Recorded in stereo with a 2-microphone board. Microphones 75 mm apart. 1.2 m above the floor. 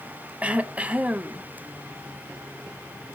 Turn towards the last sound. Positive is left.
turn(degrees=-15)  # may be behind; listen again after turning